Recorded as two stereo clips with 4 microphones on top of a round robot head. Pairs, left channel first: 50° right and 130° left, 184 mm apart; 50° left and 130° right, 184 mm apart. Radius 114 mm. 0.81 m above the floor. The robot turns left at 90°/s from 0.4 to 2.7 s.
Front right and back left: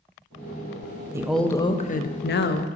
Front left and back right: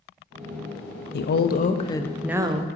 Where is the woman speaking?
55° left, 0.7 m; by 2.7 s 80° right, 0.7 m.